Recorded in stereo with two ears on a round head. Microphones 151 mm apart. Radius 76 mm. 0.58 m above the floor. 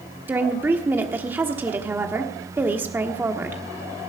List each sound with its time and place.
0.3 s a woman speaking: 10° right (ahead or behind), 1.2 m